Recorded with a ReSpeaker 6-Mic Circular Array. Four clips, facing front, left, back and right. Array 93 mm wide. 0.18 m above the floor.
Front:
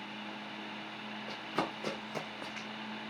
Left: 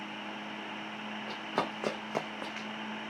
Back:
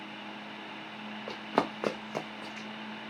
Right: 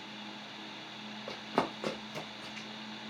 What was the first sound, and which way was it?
Running footsteps, 170° right.